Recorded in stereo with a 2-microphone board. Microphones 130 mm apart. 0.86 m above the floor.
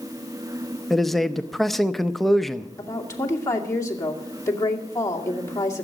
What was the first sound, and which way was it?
A man speaking, centre (ahead or behind).